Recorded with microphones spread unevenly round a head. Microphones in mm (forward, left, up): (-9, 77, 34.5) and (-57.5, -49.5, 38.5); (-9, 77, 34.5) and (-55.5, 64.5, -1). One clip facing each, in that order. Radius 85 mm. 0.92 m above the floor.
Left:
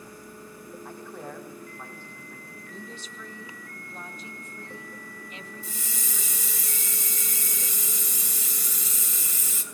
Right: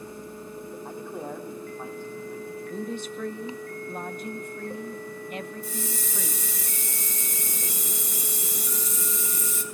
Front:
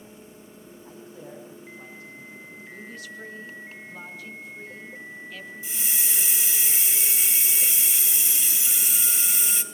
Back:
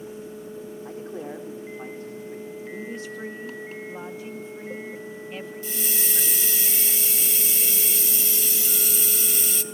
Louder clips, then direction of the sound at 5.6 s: Right 7 dB, back 2 dB; 75° left.